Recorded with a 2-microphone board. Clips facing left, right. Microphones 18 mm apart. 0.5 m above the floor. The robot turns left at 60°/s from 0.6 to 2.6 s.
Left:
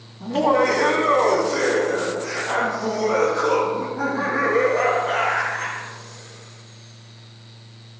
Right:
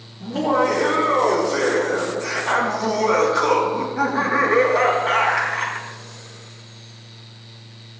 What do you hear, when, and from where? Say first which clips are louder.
0.2 s laughter: left 1 dB; 65° left, 3.5 m; by 5.9 s 55° right, 3.5 m